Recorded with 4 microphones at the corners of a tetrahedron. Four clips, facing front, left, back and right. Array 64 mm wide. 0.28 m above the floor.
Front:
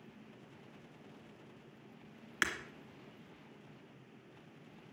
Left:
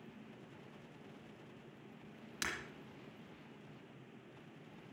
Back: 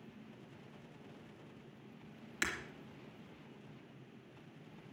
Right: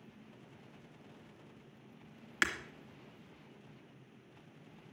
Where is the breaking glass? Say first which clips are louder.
Right 9 dB, front 3 dB; 55° right, 2.5 m.